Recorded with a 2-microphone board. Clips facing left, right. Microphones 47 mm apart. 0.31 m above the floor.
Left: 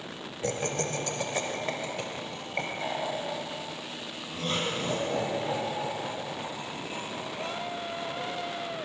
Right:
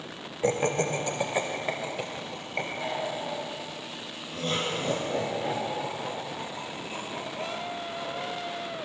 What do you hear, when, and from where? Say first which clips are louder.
0.4 s laughter: right 5 dB; 25° right (ahead or behind), 0.9 m; by 8.3 s 10° left (ahead or behind), 4.5 m